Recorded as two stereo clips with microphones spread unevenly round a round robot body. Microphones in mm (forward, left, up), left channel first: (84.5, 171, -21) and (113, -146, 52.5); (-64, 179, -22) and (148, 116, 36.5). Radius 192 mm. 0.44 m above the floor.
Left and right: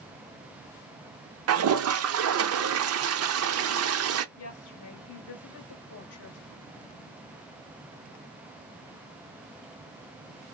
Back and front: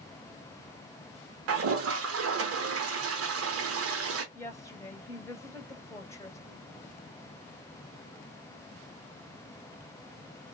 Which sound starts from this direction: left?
A woman speaking, at 4.3 s.